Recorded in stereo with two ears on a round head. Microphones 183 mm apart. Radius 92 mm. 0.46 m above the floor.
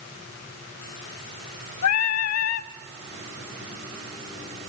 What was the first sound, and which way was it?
Singing, 75° left (ahead or behind).